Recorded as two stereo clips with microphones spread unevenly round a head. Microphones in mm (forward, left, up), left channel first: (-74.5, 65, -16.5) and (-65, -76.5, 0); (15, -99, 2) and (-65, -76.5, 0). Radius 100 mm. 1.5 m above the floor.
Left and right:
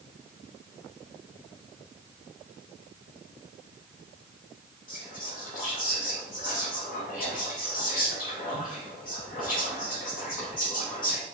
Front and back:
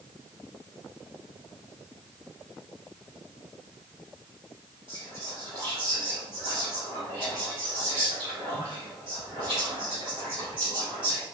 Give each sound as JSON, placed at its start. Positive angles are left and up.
{"t": 4.9, "sound": "whispering", "azimuth_deg": 115, "distance_m": 1.5}